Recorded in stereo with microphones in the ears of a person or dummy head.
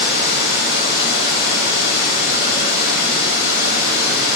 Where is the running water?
65° left (ahead or behind), 2.5 m.